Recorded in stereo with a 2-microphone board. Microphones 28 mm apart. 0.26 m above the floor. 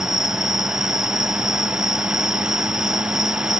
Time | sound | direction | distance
0.0 | an insect | 15° right (ahead or behind) | ?